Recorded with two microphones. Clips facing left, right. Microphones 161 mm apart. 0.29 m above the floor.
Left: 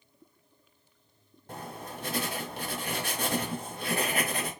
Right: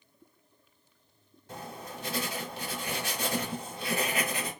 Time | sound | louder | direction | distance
1.5 | writing | left 1 dB | 50° left (ahead or behind) | 1.1 m